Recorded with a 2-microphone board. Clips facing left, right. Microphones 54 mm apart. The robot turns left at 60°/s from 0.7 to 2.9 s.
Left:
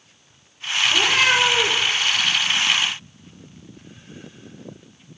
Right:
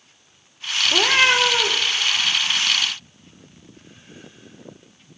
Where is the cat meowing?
125° right, 0.5 m; by 1.9 s 175° left, 0.5 m.